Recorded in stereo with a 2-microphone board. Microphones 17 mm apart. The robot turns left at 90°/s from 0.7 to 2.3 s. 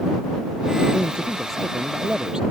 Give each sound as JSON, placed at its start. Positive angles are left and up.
{"t": 0.9, "sound": "a man speaking", "azimuth_deg": 75}